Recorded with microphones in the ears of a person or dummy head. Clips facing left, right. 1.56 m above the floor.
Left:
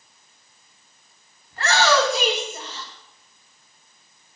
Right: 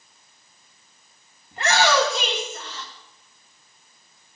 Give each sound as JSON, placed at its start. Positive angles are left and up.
{"t": 1.5, "sound": "a shout", "side_deg": -20, "distance_m": 2.5}